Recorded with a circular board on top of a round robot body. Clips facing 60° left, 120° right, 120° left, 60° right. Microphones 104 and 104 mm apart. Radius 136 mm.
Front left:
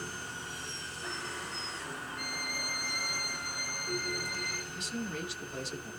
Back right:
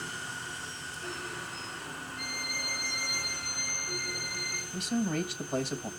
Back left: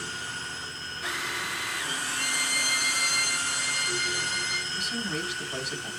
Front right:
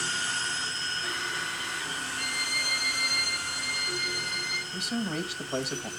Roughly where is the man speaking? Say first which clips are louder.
Back right 9 dB, front right 4 dB; right.